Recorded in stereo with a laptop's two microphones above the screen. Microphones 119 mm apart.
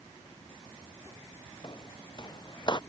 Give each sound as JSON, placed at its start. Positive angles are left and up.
{"t": 1.6, "sound": "footsteps", "side_deg": 40}